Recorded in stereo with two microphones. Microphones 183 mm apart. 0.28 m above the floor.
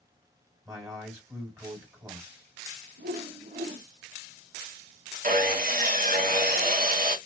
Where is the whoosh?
80° right, 0.5 m.